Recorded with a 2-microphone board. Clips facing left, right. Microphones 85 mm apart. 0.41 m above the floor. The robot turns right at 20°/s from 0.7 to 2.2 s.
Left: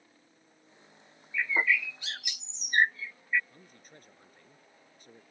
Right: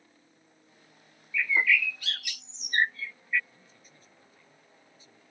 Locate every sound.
1.3 s a bird: 30° left (ahead or behind); by 3.4 s 20° left (ahead or behind)
3.5 s a man speaking: 60° left (ahead or behind)